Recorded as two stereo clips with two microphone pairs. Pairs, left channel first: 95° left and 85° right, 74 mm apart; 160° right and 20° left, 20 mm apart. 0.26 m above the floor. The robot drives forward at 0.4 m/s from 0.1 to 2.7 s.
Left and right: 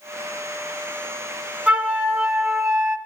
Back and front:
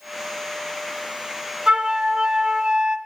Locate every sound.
1.7 s a flute: 20° right, 1.1 m; by 3.0 s 35° right, 0.8 m